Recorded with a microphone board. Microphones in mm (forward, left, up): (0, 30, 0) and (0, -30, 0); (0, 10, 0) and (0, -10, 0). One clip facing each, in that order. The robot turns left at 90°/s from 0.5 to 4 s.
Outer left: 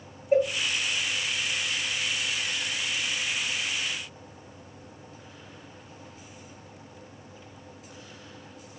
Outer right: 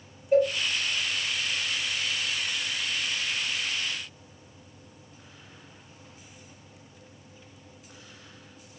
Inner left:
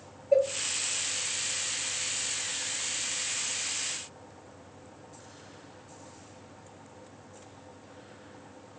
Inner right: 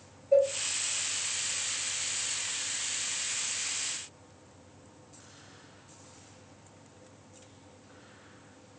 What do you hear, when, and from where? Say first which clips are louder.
0.3 s a cowbell: outer right 1 dB, even; 25° left (ahead or behind), 0.7 m